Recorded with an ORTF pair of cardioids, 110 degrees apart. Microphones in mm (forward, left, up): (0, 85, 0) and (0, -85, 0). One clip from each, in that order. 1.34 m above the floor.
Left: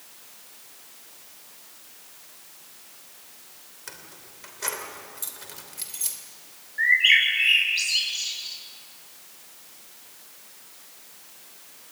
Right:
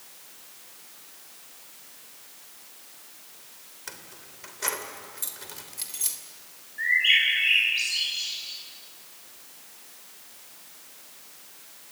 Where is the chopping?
I don't hear chopping.